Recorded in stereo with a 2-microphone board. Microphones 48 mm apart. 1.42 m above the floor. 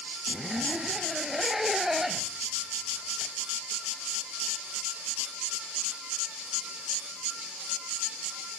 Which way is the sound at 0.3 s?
5° right (ahead or behind).